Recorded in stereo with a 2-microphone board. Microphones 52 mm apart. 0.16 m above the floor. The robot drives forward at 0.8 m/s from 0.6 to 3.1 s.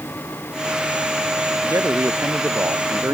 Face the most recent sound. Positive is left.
turn(degrees=-65)  # may be behind; listen again after turning